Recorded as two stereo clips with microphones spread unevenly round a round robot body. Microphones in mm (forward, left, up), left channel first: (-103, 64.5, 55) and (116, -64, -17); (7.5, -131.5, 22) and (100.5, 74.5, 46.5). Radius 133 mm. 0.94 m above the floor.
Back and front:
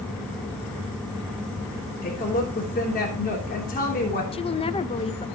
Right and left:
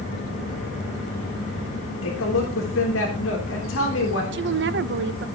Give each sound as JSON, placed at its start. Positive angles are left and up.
{"t": 2.0, "sound": "a woman speaking", "azimuth_deg": -150, "distance_m": 3.5}
{"t": 4.3, "sound": "a woman speaking", "azimuth_deg": 70, "distance_m": 0.9}